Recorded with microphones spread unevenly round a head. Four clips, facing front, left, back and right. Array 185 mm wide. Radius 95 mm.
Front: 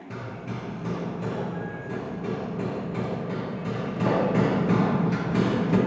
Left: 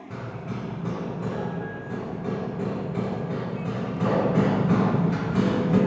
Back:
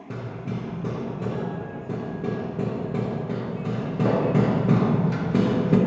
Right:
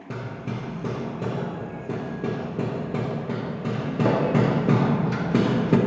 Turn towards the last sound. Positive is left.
turn(degrees=-105)